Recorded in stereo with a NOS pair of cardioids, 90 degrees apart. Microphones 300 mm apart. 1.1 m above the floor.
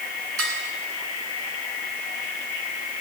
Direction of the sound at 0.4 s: 50° right.